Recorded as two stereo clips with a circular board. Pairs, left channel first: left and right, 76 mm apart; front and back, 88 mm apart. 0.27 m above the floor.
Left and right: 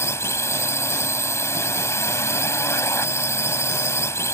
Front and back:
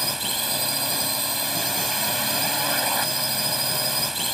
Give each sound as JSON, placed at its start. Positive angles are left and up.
{"t": 0.0, "sound": "a drone", "azimuth_deg": 90}